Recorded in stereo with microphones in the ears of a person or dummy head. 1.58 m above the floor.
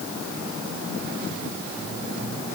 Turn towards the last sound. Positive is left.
No sound to turn to.